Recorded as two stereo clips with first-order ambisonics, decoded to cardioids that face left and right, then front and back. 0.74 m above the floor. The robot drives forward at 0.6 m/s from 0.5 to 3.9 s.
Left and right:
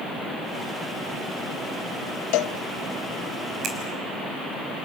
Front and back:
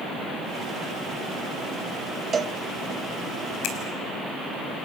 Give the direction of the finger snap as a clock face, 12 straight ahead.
1 o'clock.